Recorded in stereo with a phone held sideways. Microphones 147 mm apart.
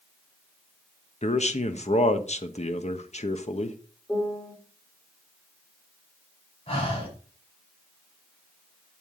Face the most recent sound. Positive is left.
turn(degrees=40)  # may be behind; listen again after turning